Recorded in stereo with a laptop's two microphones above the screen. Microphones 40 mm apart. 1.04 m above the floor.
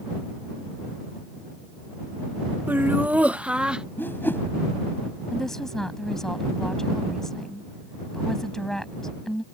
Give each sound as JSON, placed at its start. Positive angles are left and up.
{"t": 2.7, "sound": "laughter", "side_deg": -55}
{"t": 4.0, "sound": "a whoosh", "side_deg": 60}
{"t": 5.3, "sound": "a woman speaking", "side_deg": 10}